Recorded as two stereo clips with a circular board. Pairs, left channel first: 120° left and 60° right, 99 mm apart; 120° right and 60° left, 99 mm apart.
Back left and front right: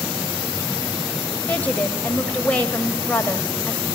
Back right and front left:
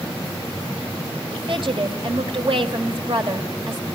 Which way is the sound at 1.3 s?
45° left.